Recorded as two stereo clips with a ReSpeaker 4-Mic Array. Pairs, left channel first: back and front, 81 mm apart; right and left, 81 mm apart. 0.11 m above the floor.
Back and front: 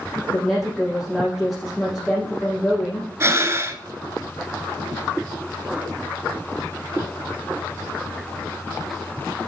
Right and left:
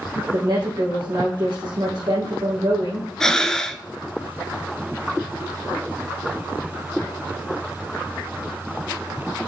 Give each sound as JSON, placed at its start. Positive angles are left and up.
{"t": 0.3, "sound": "a woman speaking", "azimuth_deg": 95, "distance_m": 3.0}
{"t": 3.2, "sound": "breathing", "azimuth_deg": -10, "distance_m": 0.6}